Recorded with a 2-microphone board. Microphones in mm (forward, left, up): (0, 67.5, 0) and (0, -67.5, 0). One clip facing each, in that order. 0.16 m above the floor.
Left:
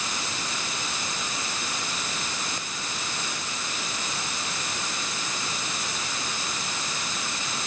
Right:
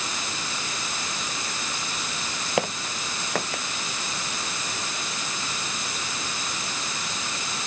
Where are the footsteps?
85° right.